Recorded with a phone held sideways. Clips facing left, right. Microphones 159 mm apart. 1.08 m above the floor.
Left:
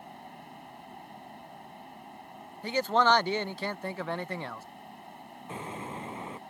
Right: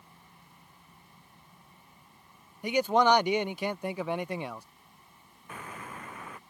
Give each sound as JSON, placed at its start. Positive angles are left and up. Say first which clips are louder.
{"t": 0.0, "sound": "a fan", "louder": "left 13 dB", "side_deg": 70}
{"t": 2.6, "sound": "a man speaking", "louder": "right 2 dB", "side_deg": -15}
{"t": 5.5, "sound": "an explosion", "louder": "left 4 dB", "side_deg": 25}